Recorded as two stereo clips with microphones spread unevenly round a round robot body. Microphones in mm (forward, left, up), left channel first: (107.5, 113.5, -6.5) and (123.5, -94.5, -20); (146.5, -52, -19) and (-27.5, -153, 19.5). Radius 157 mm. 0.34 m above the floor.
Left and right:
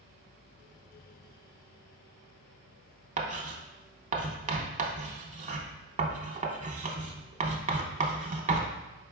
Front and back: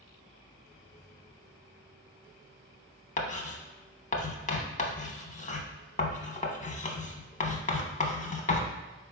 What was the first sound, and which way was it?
Writing, 25° right.